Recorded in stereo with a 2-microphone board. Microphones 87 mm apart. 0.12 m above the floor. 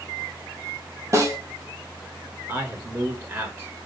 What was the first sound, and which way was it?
A snare drum, 40° right (ahead or behind).